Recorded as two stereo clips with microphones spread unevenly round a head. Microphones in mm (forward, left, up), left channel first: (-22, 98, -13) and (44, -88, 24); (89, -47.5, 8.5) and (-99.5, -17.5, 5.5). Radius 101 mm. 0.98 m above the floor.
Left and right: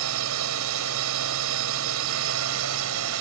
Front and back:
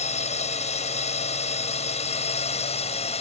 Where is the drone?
65° right.